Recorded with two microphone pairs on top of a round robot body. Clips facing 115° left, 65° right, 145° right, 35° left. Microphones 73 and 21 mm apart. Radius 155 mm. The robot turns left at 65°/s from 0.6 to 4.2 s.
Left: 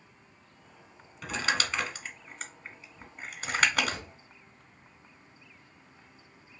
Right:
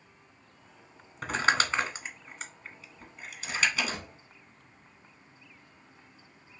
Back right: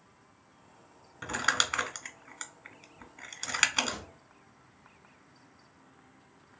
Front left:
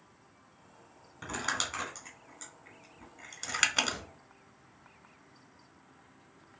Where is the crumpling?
70° right, 1.4 m; by 4.0 s 110° left, 1.4 m.